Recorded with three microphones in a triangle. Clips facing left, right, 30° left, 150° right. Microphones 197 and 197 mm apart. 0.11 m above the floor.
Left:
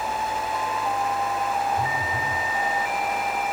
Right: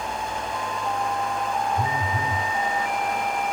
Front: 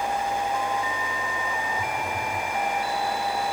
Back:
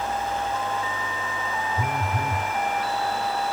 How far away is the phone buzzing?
About 1.3 m.